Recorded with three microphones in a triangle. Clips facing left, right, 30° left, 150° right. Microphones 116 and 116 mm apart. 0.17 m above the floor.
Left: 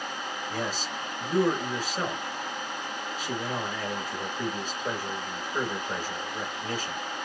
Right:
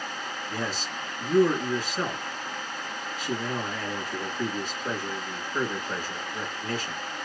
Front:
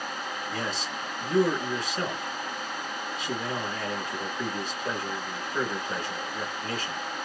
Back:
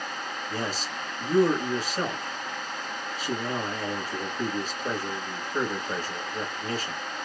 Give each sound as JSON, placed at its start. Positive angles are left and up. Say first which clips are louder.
{"t": 0.5, "sound": "a man speaking", "louder": "even, back 2 dB", "azimuth_deg": 165, "distance_m": 1.8}